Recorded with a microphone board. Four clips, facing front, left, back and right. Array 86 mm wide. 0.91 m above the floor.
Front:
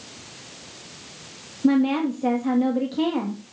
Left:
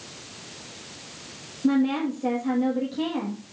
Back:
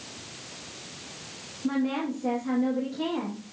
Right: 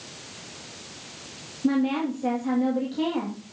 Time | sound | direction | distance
1.6 | a woman speaking | 5° right | 1.6 m